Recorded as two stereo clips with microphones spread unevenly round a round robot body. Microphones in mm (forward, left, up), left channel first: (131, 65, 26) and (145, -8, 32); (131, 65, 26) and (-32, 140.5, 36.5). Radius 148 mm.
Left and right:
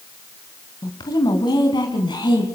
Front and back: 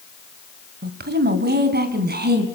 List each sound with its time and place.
0.8 s a woman speaking: 135° left, 2 m; by 2.4 s 130° left, 4 m